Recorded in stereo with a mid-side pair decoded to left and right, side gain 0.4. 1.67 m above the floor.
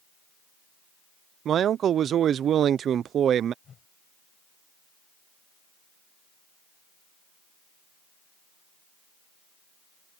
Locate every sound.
1.4 s a man speaking: 65° right
3.6 s a whoosh: 55° left